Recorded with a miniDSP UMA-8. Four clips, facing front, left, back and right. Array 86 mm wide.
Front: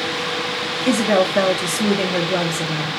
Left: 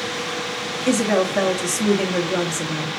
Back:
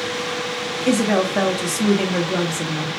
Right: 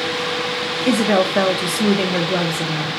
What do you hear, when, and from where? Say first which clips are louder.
0.9 s a woman speaking: right 2 dB, front 2 dB; 90° right, 0.8 m